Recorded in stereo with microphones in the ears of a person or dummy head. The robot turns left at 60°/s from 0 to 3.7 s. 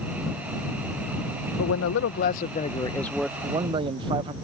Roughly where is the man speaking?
Left.